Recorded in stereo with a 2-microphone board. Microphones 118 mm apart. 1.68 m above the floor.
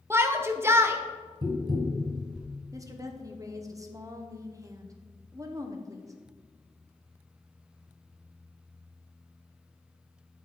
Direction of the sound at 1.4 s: 40° right (ahead or behind).